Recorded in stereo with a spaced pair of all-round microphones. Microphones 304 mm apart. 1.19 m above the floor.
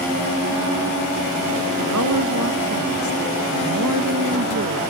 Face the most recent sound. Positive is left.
turn(degrees=-65)  # may be behind; listen again after turning